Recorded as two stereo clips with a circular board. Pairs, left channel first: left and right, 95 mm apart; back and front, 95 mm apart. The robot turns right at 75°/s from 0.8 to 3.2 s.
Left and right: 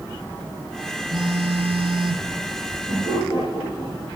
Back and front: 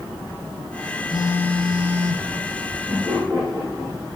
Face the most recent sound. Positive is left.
turn(degrees=105)